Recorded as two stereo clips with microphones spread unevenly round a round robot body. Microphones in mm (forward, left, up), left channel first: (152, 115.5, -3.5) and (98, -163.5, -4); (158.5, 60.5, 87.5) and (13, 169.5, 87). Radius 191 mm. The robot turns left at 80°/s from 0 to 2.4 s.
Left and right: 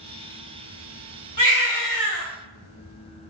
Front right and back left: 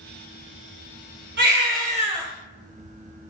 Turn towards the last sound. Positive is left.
turn(degrees=60)